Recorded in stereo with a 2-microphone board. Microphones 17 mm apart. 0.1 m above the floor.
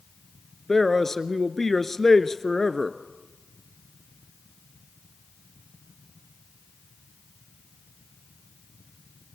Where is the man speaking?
20° left (ahead or behind), 1.2 m.